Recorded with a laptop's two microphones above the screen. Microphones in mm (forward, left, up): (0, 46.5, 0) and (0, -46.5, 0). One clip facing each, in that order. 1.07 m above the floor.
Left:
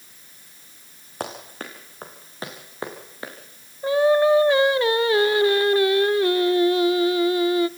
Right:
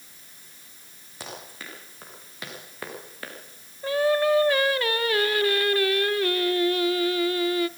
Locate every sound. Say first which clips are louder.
1.2 s running footsteps: left 7 dB; 55° left (ahead or behind), 5 m; by 3.3 s 20° left (ahead or behind), 5.5 m
3.8 s singing: left 5 dB; 20° left (ahead or behind), 0.6 m